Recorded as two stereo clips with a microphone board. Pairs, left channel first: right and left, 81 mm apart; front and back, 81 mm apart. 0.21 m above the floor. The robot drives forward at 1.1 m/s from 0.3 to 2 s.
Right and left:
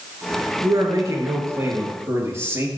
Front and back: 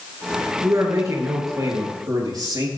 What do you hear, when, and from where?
0.6 s a man speaking: 130° left, 3.5 m; by 2.7 s 145° left, 5 m